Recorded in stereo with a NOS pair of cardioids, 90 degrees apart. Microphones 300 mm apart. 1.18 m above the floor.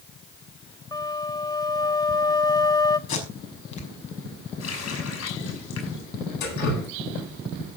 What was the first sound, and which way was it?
A flute, 15° left.